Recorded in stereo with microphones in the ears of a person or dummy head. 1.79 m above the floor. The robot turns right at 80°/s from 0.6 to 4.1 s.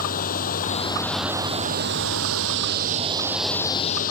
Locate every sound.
0.0 s running water: 135° left; by 4.1 s 55° left